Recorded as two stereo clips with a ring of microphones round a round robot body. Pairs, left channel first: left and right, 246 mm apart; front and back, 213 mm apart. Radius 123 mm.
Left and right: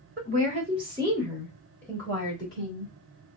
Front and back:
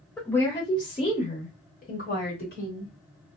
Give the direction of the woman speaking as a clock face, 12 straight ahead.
3 o'clock.